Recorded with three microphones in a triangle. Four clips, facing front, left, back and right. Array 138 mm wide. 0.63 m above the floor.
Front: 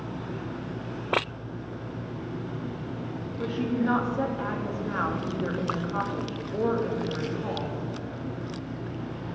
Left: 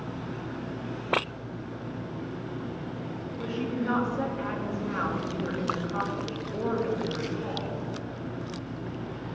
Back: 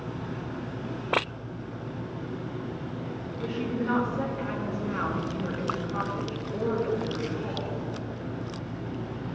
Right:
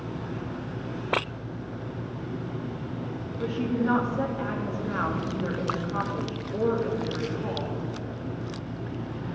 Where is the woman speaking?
30° right, 1.0 m.